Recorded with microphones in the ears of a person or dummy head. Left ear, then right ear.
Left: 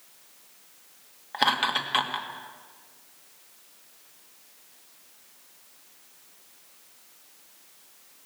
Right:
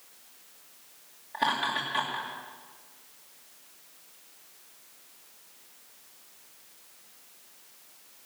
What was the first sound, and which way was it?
Laughter, 50° left (ahead or behind).